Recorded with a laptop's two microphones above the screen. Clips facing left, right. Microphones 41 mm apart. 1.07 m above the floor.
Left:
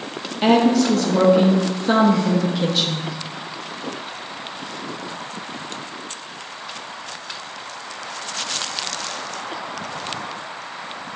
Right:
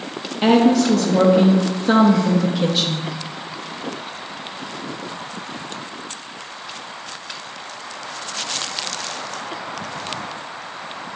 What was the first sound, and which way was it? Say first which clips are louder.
A woman speaking: right 1 dB; centre (ahead or behind).